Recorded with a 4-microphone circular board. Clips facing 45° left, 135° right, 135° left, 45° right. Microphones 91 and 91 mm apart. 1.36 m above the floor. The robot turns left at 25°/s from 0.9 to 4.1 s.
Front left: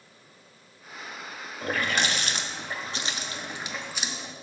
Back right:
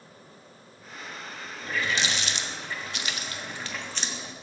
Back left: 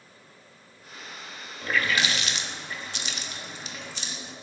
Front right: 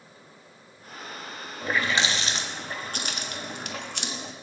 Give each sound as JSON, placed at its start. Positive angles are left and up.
{"t": 1.6, "sound": "a running tap", "azimuth_deg": 25, "distance_m": 1.2}